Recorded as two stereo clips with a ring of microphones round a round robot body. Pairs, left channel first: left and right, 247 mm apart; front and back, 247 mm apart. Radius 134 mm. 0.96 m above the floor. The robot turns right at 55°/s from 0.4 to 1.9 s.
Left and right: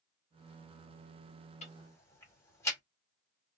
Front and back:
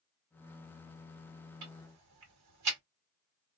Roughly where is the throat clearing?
No throat clearing in this recording.